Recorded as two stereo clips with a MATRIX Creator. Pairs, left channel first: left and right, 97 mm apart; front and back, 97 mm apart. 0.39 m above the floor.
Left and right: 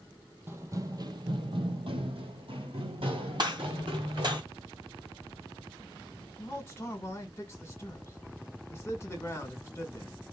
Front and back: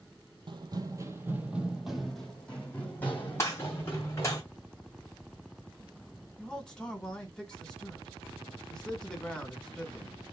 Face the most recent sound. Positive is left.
turn(degrees=75)